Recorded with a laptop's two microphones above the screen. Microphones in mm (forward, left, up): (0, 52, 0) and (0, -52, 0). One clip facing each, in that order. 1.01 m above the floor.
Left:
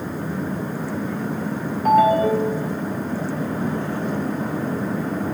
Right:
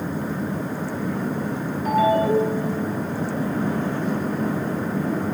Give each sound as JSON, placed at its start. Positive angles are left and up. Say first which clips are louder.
{"t": 1.9, "sound": "a ringtone", "louder": "left 3 dB", "side_deg": 55, "distance_m": 1.5}